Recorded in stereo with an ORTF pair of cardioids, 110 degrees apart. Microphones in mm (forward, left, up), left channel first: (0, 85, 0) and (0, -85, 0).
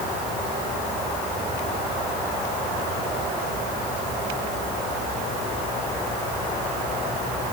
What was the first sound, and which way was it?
Only background noise.